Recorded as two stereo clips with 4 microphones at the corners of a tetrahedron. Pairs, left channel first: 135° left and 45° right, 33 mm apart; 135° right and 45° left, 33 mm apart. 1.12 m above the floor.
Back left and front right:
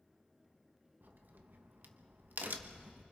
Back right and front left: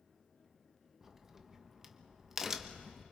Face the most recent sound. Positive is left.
turn(degrees=-30)